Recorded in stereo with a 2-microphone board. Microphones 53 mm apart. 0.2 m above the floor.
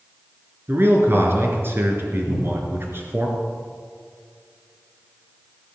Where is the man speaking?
45° right (ahead or behind), 3 m.